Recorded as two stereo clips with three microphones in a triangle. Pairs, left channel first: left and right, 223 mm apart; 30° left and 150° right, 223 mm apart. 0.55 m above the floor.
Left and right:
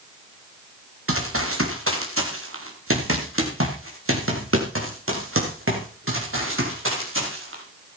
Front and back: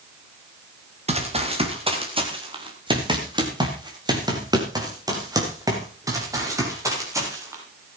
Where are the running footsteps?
90° right, 4.5 m; by 7.6 s 75° right, 9.5 m.